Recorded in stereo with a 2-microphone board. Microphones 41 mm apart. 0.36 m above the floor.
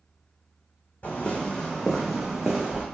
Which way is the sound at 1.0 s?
35° left (ahead or behind).